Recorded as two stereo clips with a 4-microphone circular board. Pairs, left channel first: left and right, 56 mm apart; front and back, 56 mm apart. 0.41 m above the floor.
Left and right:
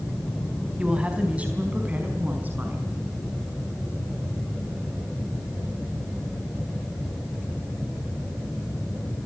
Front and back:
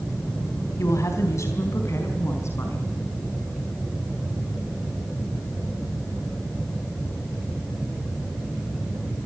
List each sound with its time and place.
0.8 s a woman speaking: 20° right, 4 m; by 2.9 s 35° right, 5 m